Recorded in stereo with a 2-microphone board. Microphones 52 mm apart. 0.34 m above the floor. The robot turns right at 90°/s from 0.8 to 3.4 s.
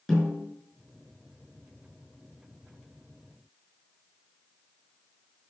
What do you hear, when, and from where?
0.1 s a snare drum: centre (ahead or behind), 6 m